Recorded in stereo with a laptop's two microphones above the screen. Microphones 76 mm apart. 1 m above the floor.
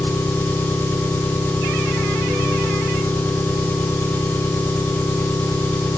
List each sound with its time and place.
0.0 s an engine running: 25° left (ahead or behind), 3 m